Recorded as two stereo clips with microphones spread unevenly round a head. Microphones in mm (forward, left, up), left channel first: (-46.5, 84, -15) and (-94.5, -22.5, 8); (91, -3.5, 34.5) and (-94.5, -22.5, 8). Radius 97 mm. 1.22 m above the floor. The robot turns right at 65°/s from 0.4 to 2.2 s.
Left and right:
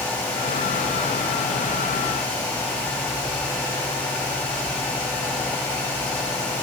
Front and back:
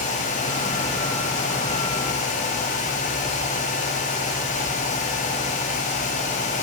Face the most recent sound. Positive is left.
No sound to turn to.